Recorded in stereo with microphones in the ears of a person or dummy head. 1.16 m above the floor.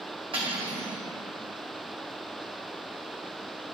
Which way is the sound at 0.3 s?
30° right (ahead or behind).